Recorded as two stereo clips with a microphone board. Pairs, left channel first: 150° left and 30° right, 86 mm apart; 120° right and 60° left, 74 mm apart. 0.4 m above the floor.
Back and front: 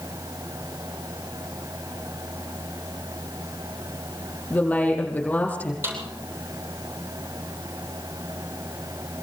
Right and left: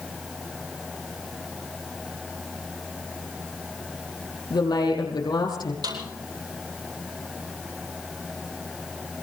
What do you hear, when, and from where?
4.5 s a woman speaking: 135° right, 6 m
5.8 s a snare drum: 30° left, 9 m